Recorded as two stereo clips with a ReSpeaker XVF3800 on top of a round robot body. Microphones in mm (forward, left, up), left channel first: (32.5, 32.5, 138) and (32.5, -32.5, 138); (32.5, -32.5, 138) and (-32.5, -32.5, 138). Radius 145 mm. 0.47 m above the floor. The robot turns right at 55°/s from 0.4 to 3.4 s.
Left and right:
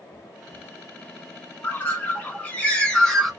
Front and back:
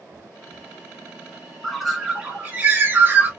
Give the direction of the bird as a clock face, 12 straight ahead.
9 o'clock.